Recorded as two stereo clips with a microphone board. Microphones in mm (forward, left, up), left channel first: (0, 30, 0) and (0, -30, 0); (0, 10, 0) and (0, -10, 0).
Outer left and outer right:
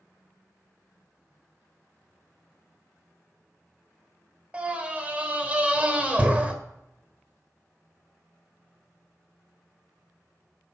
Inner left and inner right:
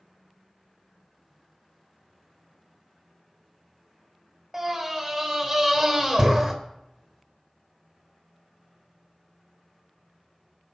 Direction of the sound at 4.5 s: 20° right (ahead or behind).